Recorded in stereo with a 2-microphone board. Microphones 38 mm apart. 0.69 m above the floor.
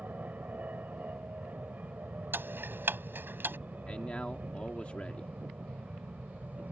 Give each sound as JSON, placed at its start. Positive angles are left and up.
{"t": 0.0, "sound": "an aircraft", "side_deg": -45}
{"t": 2.3, "sound": "ticking", "side_deg": -65}
{"t": 3.9, "sound": "a man speaking", "side_deg": 35}